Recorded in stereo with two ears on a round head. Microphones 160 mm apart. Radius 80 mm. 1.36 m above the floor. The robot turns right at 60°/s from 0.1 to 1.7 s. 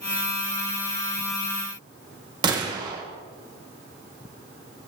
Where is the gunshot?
25° right (ahead or behind), 1.1 m.